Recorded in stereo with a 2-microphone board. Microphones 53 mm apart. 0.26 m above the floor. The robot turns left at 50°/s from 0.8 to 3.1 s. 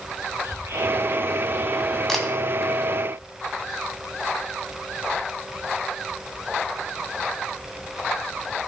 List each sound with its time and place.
0.4 s whispering: 90° right, 6 m; by 2.0 s 150° right, 6 m
2.1 s a camera shutter: 10° left (ahead or behind), 1.8 m; by 2.3 s centre (ahead or behind), 1.8 m